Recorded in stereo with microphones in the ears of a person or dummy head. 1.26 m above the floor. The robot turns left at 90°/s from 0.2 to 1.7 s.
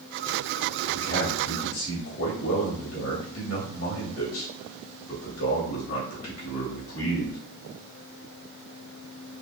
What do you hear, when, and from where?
0.9 s a man speaking: 160° left, 2.5 m; by 7.4 s 95° left, 2.5 m